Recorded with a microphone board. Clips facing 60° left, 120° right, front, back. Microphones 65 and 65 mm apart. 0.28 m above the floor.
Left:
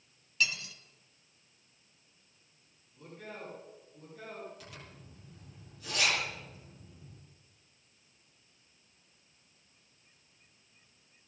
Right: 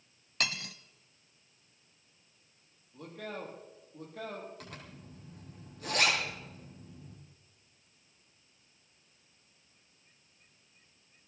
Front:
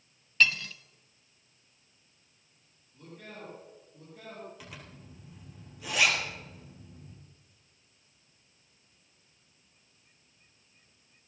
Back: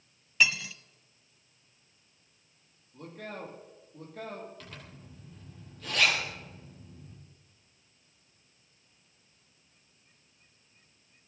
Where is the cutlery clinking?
100° right, 0.9 m.